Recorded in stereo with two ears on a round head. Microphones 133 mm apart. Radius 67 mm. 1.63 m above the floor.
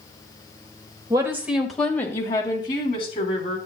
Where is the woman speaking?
25° right (ahead or behind), 1.5 m; by 3.6 s 45° left (ahead or behind), 3.5 m.